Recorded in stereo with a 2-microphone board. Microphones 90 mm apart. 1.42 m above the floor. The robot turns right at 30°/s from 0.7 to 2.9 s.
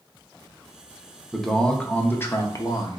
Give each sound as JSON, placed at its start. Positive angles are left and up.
{"t": 1.3, "sound": "a man speaking", "azimuth_deg": 0, "distance_m": 0.7}